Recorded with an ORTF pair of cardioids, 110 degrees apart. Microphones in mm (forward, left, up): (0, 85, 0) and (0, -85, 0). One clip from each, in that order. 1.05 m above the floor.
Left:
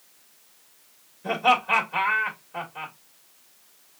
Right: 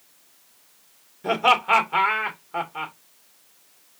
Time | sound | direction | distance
1.2 | laughter | 65° right | 2.5 m